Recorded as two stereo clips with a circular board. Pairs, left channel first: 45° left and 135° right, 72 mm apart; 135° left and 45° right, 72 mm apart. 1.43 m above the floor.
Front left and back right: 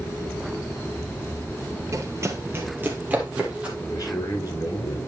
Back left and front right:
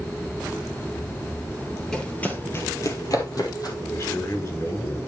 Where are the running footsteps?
145° right, 1.8 m; by 3.7 s 150° left, 3 m.